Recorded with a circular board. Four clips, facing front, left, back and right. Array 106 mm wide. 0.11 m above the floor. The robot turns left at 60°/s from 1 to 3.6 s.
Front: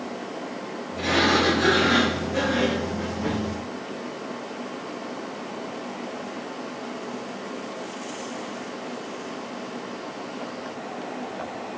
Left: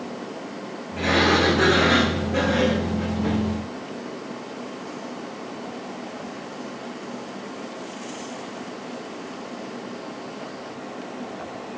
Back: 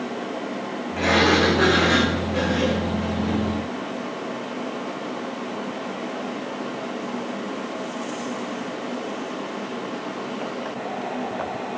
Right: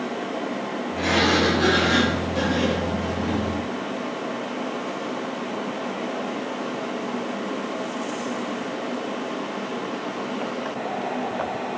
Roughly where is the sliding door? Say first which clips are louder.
Left 1 dB, back 3 dB; behind.